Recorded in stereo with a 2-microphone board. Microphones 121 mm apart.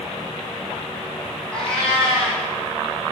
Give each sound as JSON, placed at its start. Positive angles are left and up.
{"t": 1.5, "sound": "a cat meowing", "side_deg": 10, "distance_m": 3.0}